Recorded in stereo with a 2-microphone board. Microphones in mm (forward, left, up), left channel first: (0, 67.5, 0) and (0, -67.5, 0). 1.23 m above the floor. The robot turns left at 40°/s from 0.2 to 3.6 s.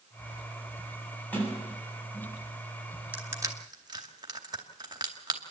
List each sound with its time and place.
1.3 s a sliding door: 10° left (ahead or behind), 8 m; by 2.4 s 55° left (ahead or behind), 8 m
3.1 s crushing: 10° right (ahead or behind), 2 m; by 5.4 s 30° right (ahead or behind), 2 m